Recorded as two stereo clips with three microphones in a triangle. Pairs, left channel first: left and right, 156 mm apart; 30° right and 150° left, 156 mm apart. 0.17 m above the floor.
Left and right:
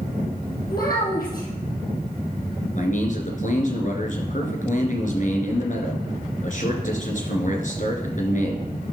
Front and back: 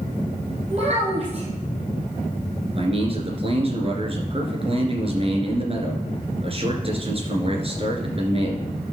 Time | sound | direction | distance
0.7 | a child speaking | 105° left | 4 m
2.8 | a man speaking | 105° left | 2.5 m